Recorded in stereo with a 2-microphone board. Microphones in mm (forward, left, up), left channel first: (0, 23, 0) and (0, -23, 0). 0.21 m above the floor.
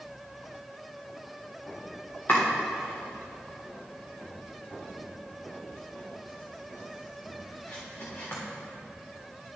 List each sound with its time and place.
2.3 s chopping: 40° left (ahead or behind), 3 m